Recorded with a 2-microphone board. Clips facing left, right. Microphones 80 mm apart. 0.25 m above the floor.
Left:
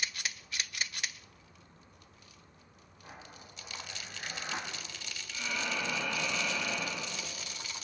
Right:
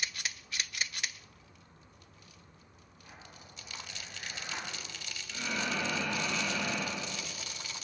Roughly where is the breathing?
Right.